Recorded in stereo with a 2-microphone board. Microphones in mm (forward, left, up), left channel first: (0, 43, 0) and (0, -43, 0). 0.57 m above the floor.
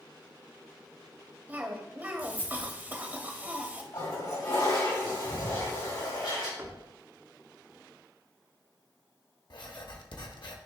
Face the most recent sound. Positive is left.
turn(degrees=70)  # may be behind; listen again after turning